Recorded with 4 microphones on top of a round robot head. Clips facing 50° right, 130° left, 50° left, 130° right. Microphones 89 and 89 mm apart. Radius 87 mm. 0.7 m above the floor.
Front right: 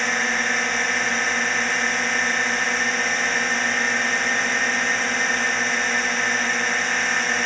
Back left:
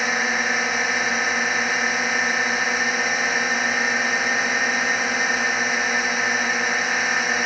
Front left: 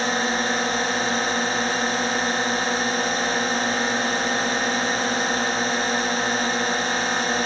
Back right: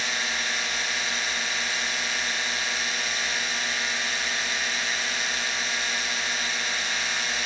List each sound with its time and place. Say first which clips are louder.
0.0 s a drone: back left 1 dB, front left 8 dB; 45° left